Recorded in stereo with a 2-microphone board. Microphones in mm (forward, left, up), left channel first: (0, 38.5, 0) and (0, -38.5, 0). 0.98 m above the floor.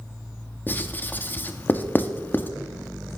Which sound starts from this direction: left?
Writing, at 0.7 s.